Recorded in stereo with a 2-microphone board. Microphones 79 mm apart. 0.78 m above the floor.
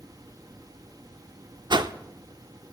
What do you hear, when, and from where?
1.7 s a whoosh: 65° right (ahead or behind), 0.5 m